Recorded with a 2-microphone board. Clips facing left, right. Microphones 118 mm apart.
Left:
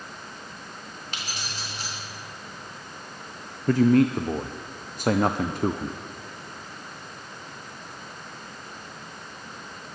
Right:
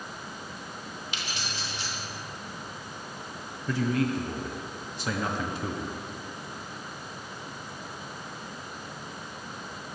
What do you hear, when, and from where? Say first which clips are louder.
1.1 s keys jangling: left 1 dB; 45° left (ahead or behind), 3.5 m
3.7 s a man speaking: left 8 dB; 50° left (ahead or behind), 0.5 m